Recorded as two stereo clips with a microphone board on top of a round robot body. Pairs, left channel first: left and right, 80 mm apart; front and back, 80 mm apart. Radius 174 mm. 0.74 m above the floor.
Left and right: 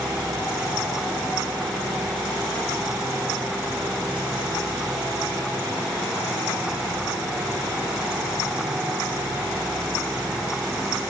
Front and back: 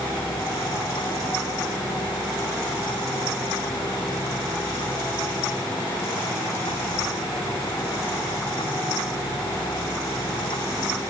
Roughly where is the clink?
I don't hear a clink.